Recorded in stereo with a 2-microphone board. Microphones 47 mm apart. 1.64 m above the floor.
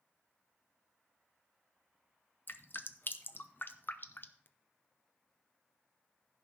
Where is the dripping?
50° left (ahead or behind), 0.8 m.